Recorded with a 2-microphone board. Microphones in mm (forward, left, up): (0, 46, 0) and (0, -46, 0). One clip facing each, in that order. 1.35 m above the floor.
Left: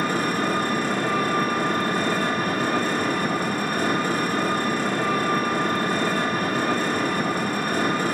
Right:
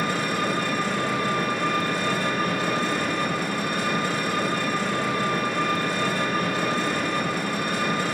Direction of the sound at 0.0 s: 40° left (ahead or behind).